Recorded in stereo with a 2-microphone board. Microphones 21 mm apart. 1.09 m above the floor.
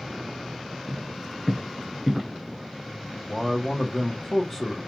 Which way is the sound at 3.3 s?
45° left (ahead or behind).